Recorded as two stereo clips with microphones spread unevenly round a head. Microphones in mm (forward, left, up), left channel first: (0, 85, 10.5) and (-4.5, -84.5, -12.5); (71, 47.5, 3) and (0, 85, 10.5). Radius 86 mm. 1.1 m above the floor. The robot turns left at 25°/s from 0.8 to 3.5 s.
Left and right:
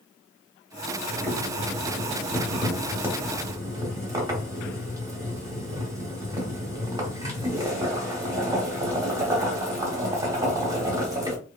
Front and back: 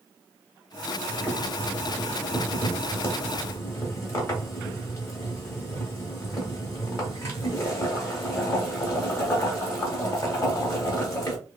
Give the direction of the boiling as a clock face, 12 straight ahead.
11 o'clock.